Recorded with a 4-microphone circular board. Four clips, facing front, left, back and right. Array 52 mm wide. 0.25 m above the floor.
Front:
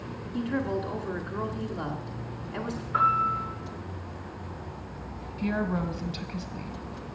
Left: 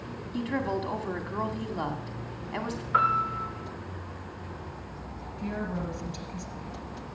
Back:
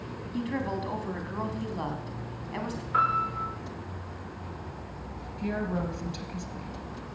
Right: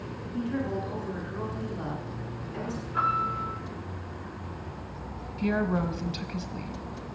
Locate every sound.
0.3 s a woman speaking: 115° left, 1.7 m
2.9 s a piano: 110° left, 9.5 m
5.4 s a woman speaking: 60° right, 1.3 m